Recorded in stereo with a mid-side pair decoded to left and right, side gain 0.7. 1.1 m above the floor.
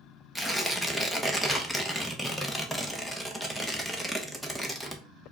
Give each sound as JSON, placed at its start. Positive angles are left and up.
{"t": 0.3, "sound": "tearing paper", "azimuth_deg": 0, "distance_m": 0.9}